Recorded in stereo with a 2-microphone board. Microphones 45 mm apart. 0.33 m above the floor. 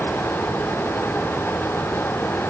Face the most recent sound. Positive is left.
No sound to turn to.